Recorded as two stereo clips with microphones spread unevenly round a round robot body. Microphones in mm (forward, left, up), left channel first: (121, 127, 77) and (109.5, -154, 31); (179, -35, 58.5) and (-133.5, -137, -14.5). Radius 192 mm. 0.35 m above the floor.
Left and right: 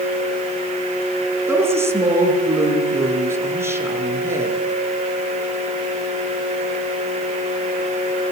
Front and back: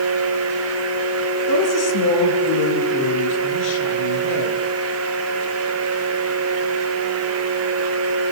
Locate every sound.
1.5 s a woman speaking: 10° right, 6.5 m